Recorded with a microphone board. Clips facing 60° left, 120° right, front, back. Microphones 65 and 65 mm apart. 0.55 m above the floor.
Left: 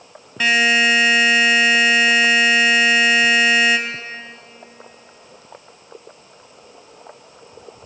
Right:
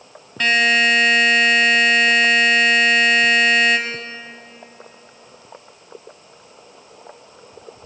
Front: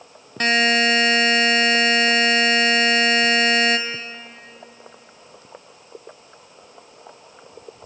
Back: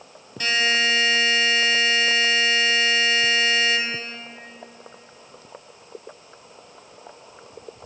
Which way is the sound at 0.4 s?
25° right.